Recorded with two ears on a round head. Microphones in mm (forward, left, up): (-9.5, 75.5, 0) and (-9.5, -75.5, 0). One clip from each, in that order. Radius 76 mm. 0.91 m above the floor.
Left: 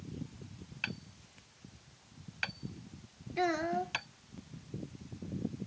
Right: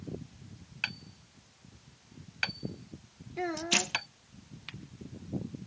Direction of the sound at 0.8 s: 25° right (ahead or behind).